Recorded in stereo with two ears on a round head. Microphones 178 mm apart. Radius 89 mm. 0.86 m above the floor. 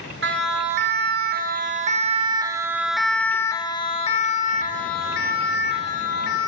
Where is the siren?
65° right (ahead or behind), 2 m; by 6.5 s 60° left (ahead or behind), 2.5 m.